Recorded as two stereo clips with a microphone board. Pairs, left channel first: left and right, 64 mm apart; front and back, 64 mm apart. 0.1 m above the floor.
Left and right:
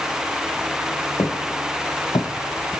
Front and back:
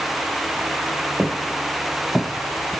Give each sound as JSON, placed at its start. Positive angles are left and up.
{"t": 1.2, "sound": "footsteps", "azimuth_deg": 95, "distance_m": 2.0}